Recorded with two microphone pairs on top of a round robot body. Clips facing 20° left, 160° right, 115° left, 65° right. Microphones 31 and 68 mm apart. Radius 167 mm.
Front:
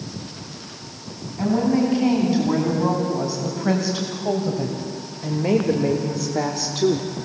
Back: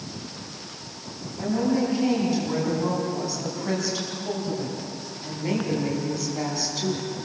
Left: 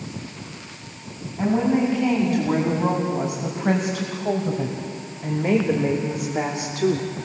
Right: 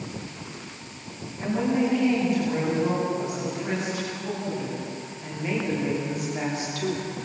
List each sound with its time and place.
1.4 s a woman speaking: 75° left, 6.5 m; by 7.1 s 50° left, 2.0 m